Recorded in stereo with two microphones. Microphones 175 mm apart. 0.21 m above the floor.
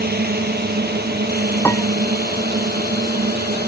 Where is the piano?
15° left (ahead or behind).